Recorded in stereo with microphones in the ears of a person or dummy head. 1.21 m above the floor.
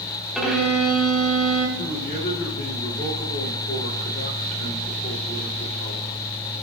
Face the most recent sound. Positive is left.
turn(degrees=50)  # may be behind; listen again after turning